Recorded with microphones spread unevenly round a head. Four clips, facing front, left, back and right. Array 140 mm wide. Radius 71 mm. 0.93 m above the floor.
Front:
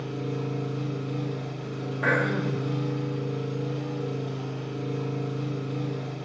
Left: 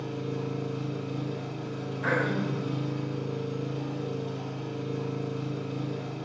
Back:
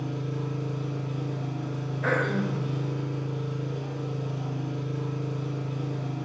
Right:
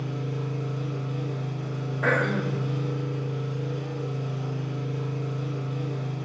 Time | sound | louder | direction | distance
0.0 | an engine running | even, front 1 dB | 50° left | 3 m
2.0 | throat clearing | right 3 dB, front 1 dB | 45° right | 1.6 m